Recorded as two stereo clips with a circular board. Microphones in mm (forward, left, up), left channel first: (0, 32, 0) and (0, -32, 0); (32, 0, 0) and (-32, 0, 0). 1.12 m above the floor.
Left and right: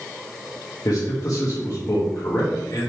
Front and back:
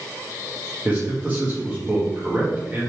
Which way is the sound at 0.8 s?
110° left.